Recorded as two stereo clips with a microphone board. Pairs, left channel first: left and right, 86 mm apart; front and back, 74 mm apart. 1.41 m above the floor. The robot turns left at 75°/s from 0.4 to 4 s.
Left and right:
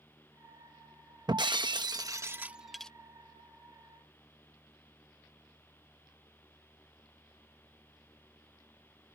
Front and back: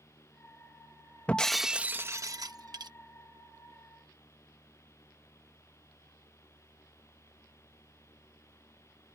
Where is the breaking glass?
70° right; by 2.9 s 170° left.